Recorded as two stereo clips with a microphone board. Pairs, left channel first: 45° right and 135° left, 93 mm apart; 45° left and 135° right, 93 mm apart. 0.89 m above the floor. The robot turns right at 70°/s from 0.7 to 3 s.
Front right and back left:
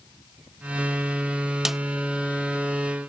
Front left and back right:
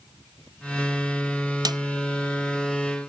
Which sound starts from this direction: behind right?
A snare drum, at 1.6 s.